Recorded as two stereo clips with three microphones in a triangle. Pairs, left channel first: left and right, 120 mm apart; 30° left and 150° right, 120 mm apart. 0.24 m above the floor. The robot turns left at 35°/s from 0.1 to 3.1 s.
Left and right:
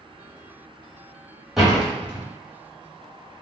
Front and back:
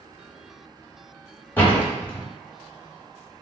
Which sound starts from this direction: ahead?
A door slam, at 1.6 s.